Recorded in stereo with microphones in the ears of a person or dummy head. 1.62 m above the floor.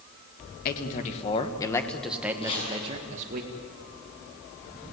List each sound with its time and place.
0.7 s a man speaking: 45° left (ahead or behind), 2.0 m; by 3.4 s 50° right (ahead or behind), 2 m
2.4 s chopping: 25° left (ahead or behind), 7.5 m